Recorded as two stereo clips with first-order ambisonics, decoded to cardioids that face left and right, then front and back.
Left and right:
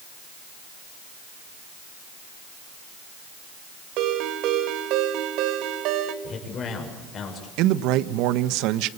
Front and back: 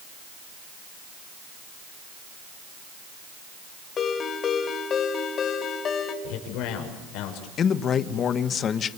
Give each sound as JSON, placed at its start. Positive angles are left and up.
{"t": 4.0, "sound": "a ringtone", "azimuth_deg": -60, "distance_m": 3.0}
{"t": 6.2, "sound": "a man speaking", "azimuth_deg": 30, "distance_m": 6.5}
{"t": 7.6, "sound": "a man speaking", "azimuth_deg": -60, "distance_m": 1.2}